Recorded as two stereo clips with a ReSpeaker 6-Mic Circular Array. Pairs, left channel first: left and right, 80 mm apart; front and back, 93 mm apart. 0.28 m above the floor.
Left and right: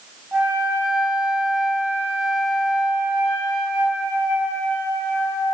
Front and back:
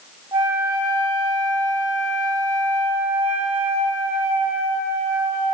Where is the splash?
No splash in this recording.